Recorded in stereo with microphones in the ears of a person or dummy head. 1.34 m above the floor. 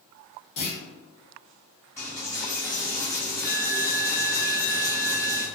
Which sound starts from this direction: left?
A clunk, at 0.6 s.